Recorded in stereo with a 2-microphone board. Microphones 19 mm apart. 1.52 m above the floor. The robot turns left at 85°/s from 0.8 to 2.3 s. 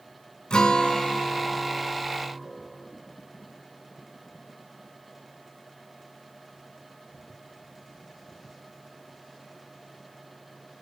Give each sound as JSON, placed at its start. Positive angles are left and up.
{"t": 0.5, "sound": "a guitar", "azimuth_deg": 95, "distance_m": 1.8}